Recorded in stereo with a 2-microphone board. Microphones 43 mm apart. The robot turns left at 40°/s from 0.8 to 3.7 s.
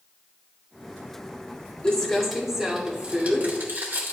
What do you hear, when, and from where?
1.8 s crumpling: 20° left, 2.5 m; by 4.1 s 50° right, 2.5 m